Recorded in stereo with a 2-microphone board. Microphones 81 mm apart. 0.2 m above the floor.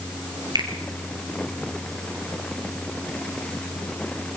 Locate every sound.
0.6 s a finger snap: 60° right (ahead or behind), 3.5 m